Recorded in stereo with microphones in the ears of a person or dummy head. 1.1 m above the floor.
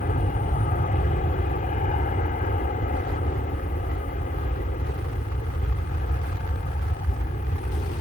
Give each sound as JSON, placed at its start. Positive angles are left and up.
{"t": 0.0, "sound": "an aircraft", "side_deg": 40}